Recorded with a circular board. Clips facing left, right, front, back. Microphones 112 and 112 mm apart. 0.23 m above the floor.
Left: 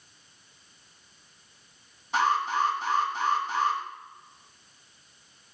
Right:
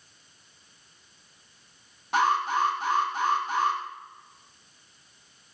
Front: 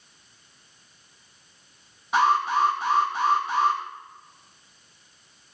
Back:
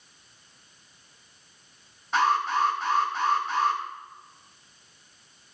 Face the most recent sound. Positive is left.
turn(degrees=-80)